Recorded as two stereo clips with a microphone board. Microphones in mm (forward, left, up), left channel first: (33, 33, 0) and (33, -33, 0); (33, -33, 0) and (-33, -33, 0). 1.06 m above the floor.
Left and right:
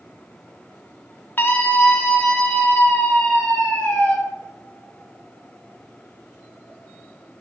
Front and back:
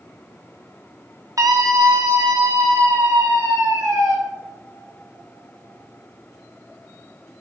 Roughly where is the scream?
Behind left.